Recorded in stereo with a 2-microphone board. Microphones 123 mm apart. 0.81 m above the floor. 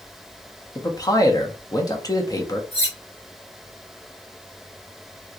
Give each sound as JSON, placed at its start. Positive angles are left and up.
{"t": 0.8, "sound": "a man speaking", "side_deg": 30, "distance_m": 0.9}
{"t": 2.7, "sound": "cutlery clinking", "side_deg": 55, "distance_m": 1.1}